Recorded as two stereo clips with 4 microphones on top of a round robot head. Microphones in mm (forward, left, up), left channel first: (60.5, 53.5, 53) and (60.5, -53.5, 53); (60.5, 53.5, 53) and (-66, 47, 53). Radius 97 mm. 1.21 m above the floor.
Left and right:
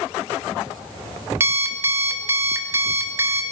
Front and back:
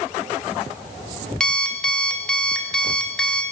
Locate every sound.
1.4 s an alarm clock: 75° right, 0.6 m